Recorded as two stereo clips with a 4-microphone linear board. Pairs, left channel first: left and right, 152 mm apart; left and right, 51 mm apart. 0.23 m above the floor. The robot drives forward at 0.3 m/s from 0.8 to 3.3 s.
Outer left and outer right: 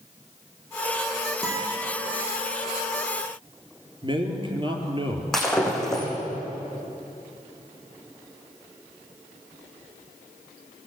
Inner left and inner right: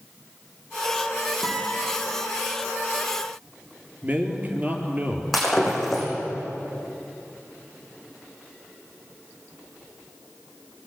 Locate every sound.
1.4 s a guitar: centre (ahead or behind), 7 m
4.0 s a man speaking: 35° right (ahead or behind), 4.5 m
5.3 s breaking glass: 5° left (ahead or behind), 7 m